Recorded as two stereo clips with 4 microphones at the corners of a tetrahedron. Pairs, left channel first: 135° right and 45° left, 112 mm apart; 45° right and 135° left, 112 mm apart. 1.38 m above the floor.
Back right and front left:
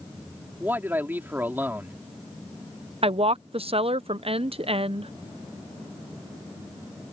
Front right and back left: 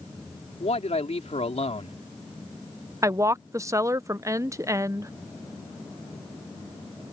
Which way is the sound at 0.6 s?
30° right.